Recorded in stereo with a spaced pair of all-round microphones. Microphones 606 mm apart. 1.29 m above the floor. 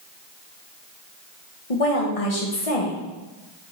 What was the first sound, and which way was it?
A woman speaking, 65° left (ahead or behind).